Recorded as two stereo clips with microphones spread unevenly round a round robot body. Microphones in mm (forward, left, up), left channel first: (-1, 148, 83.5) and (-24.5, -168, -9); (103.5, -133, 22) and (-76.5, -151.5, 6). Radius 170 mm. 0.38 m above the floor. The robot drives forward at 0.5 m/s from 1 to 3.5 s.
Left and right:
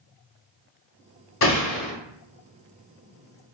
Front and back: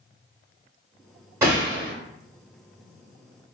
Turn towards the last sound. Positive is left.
turn(degrees=165)